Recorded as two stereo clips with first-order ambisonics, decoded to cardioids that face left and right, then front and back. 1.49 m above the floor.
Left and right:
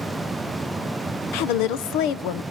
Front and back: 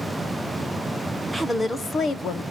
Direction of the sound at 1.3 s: 90° left.